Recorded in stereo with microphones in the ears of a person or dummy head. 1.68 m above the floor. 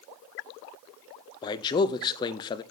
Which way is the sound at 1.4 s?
20° left (ahead or behind).